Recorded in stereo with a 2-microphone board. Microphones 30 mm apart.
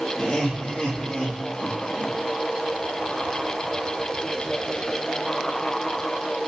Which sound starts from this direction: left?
Laughter, at 0.2 s.